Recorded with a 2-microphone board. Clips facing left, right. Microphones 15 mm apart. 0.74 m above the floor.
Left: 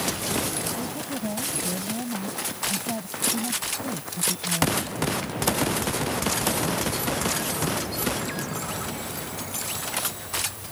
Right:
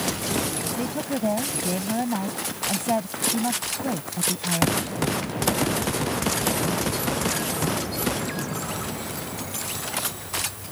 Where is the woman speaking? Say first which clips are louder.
Right 4 dB; 55° right (ahead or behind).